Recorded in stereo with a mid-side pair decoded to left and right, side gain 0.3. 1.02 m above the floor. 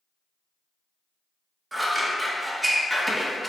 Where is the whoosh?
I don't hear a whoosh.